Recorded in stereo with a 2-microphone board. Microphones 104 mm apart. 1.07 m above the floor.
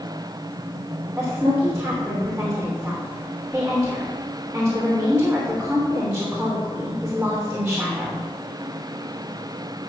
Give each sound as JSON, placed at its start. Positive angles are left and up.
{"t": 1.2, "sound": "a woman speaking", "side_deg": -10, "distance_m": 3.0}